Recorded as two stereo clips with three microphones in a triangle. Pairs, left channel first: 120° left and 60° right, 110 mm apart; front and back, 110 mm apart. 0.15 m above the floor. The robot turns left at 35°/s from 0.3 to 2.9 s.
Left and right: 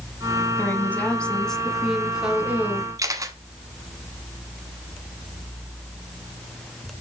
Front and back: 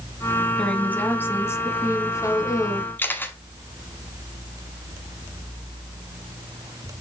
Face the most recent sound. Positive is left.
turn(degrees=-55)